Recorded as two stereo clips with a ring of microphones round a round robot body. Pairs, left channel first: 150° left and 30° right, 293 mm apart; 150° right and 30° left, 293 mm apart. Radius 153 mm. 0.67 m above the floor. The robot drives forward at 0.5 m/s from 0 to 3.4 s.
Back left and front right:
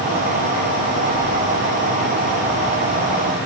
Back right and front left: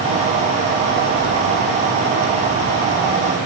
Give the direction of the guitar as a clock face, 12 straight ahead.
I don't hear a guitar.